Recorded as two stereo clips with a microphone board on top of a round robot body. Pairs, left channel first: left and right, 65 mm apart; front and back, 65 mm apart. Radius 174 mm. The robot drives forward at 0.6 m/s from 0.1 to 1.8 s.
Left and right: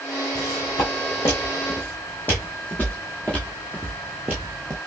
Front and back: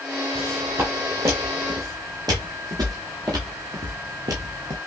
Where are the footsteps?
125° left, 1.8 m; by 4.8 s 135° right, 0.6 m.